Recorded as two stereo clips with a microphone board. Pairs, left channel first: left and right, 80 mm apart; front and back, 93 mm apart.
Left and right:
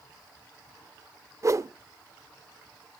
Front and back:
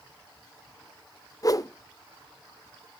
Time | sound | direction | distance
1.4 | a whoosh | 45° right | 0.7 m